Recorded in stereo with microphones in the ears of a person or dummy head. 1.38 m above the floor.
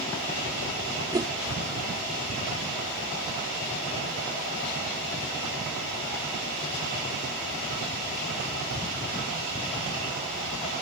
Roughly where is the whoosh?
Centre.